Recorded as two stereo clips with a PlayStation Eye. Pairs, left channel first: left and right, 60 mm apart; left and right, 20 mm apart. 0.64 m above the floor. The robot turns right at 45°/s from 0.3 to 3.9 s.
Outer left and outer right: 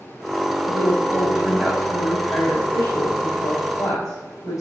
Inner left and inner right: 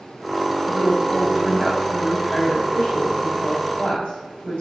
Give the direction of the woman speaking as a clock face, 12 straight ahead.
1 o'clock.